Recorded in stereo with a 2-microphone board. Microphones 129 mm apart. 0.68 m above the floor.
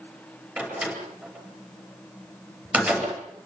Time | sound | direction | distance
0.6 | a door slam | 10° right (ahead or behind) | 8.5 m